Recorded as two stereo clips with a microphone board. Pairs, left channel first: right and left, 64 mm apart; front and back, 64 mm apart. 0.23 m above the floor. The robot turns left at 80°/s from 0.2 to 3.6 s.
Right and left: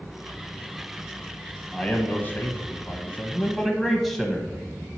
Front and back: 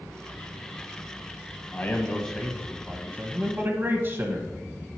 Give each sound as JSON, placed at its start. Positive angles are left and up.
{"t": 1.7, "sound": "a man speaking", "azimuth_deg": -30, "distance_m": 1.1}